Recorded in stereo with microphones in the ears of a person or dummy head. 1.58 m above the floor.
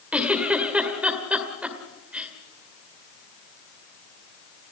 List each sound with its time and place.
0.1 s a giggle: 5° right (ahead or behind), 2 m